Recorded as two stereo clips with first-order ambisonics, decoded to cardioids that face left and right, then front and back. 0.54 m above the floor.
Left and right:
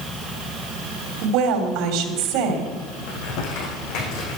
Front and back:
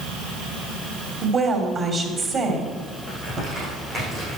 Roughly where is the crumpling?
Left.